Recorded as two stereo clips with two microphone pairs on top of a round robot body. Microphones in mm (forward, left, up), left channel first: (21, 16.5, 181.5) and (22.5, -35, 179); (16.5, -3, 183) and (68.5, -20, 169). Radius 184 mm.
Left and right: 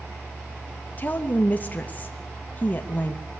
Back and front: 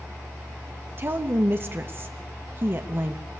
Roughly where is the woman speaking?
Ahead left.